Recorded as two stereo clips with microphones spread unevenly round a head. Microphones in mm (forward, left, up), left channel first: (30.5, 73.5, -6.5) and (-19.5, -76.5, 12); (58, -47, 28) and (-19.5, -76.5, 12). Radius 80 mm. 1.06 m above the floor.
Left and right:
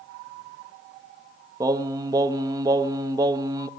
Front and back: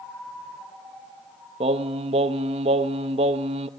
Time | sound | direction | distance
1.6 | singing | 175° right | 0.6 m